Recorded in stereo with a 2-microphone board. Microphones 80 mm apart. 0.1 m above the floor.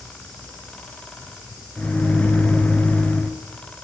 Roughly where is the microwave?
Centre.